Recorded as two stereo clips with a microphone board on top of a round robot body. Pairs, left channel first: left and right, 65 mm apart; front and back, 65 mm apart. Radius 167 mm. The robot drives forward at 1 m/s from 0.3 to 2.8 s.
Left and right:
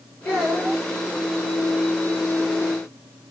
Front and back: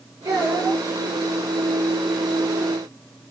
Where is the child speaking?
145° left, 9 m.